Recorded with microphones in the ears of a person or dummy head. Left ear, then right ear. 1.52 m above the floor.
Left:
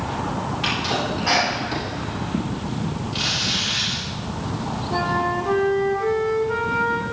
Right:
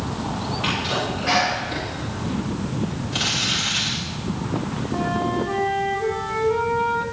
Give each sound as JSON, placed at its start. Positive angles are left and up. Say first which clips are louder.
{"t": 0.6, "sound": "a sneeze", "louder": "left 1 dB", "side_deg": 25, "distance_m": 4.0}
{"t": 3.1, "sound": "crumpling", "louder": "even", "side_deg": -20, "distance_m": 2.0}
{"t": 4.9, "sound": "a flute", "louder": "left 2 dB", "side_deg": 55, "distance_m": 1.6}